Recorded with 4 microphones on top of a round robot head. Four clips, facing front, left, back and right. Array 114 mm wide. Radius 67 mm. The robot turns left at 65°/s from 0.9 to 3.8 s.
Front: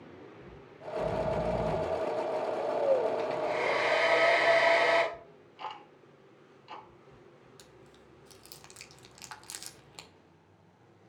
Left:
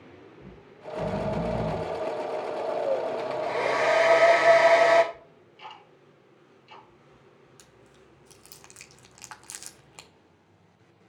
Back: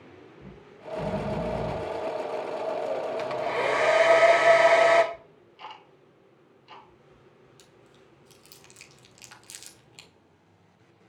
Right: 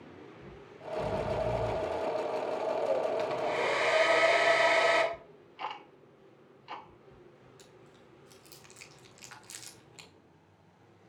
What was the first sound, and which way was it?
Snoring, 150° left.